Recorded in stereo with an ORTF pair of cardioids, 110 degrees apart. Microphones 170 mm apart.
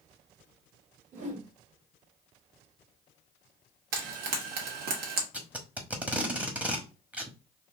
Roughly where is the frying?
Ahead right.